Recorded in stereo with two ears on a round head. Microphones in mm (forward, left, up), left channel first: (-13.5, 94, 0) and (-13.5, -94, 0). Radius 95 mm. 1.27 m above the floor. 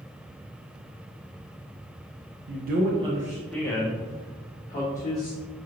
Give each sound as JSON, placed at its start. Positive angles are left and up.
{"t": 2.5, "sound": "a man speaking", "side_deg": -55, "distance_m": 0.6}